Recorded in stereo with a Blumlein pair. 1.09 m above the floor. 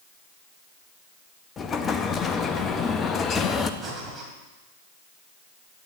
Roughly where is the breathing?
Ahead.